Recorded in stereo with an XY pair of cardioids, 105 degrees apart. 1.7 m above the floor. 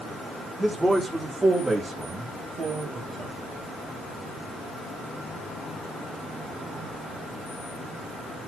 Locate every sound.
0.6 s a man speaking: 10° right, 6.5 m; by 3.4 s 50° right, 5 m